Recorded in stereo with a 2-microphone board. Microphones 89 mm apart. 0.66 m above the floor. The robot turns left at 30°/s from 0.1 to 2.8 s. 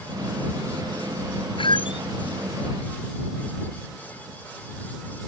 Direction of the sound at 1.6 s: 85° left.